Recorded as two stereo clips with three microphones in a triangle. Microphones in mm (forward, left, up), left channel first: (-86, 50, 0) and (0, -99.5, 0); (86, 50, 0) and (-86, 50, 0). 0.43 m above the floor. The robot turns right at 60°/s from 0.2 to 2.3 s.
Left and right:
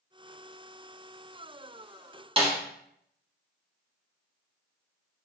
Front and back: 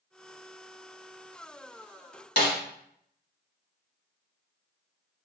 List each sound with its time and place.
2.4 s a snare drum: 5° right, 1.1 m